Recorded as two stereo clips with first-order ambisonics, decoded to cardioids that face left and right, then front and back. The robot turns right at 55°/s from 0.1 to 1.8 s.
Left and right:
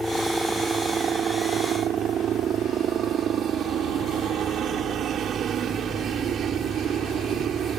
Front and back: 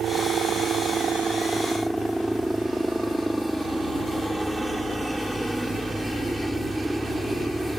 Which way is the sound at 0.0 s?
175° left.